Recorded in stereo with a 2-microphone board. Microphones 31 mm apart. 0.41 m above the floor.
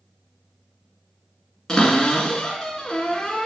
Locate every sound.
1.7 s a cupboard door: 20° left (ahead or behind), 1.5 m